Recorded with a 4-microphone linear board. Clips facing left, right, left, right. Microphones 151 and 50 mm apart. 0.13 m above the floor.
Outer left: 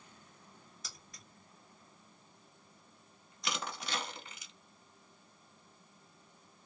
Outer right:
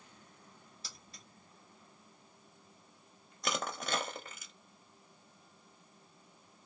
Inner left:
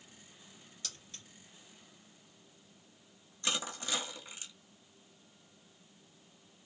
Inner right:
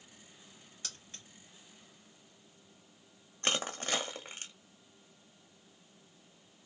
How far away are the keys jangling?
About 1.5 m.